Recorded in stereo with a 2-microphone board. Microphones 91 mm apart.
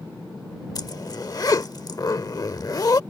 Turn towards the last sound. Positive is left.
turn(degrees=45)  # may be behind; listen again after turning